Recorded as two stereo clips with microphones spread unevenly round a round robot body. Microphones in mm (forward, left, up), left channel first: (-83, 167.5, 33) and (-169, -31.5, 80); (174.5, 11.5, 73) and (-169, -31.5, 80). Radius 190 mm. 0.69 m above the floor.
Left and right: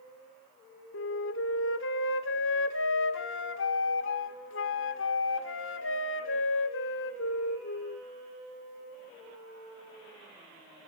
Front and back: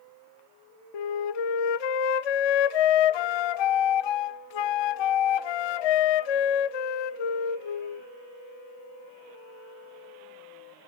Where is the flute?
20° left, 0.8 m.